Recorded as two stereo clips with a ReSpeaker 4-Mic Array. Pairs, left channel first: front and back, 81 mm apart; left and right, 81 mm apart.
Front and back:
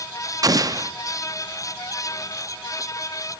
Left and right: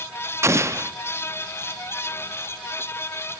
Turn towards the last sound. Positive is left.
turn(degrees=-140)